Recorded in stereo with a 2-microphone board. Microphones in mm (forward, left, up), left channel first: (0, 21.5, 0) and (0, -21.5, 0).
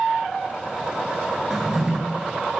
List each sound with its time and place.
1.5 s a drawer: 10° right (ahead or behind), 1.3 m